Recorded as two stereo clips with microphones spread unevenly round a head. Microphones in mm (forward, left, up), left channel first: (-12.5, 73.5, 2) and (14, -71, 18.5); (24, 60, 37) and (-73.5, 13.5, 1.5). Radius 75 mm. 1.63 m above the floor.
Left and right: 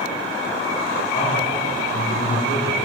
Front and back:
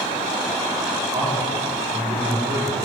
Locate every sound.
1.1 s a man speaking: 145° left, 4 m